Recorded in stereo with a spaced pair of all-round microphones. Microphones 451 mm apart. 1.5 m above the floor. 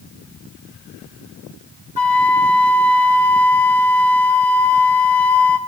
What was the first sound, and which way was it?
A flute, 55° left (ahead or behind).